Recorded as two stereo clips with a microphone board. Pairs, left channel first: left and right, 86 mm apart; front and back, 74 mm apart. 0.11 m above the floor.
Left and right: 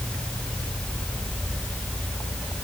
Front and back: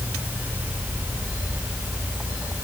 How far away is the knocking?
I don't hear knocking.